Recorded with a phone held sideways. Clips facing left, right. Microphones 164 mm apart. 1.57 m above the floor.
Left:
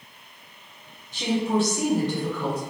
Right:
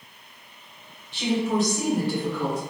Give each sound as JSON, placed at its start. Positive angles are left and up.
{"t": 1.1, "sound": "a woman speaking", "side_deg": 45, "distance_m": 1.3}